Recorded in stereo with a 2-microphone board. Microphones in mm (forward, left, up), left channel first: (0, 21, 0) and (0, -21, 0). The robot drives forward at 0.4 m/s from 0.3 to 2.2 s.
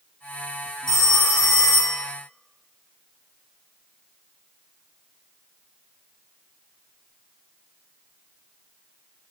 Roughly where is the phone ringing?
Centre.